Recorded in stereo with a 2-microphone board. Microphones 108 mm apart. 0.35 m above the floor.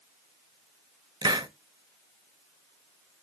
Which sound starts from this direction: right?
A hiss, at 1.2 s.